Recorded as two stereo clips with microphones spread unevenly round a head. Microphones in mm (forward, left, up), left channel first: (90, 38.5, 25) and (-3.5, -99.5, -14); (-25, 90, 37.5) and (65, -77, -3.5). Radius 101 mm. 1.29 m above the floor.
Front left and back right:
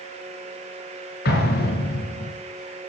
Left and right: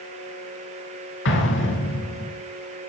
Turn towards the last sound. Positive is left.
turn(degrees=95)